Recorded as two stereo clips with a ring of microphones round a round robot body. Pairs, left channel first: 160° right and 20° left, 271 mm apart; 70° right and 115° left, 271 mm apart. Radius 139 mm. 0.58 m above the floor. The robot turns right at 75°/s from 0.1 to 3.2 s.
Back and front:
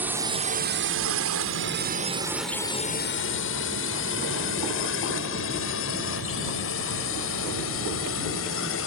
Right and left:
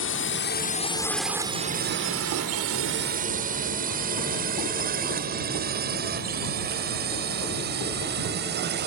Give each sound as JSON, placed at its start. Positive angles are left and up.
{"t": 0.0, "sound": "a drone", "azimuth_deg": -60}